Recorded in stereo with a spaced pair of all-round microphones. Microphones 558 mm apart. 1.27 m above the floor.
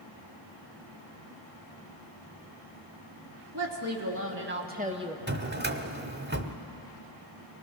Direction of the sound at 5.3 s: 20° right (ahead or behind).